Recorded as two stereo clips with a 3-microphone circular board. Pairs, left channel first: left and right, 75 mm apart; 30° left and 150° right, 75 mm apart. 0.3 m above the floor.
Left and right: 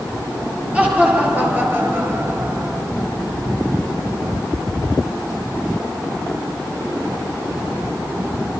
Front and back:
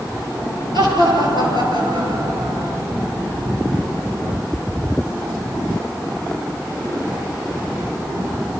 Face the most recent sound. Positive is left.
turn(degrees=-140)